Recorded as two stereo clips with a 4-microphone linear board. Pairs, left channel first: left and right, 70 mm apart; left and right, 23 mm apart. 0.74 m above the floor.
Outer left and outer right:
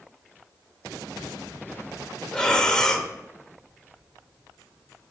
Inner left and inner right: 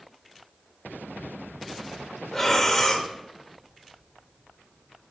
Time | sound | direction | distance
2.3 | breathing | 10° left (ahead or behind) | 1.1 m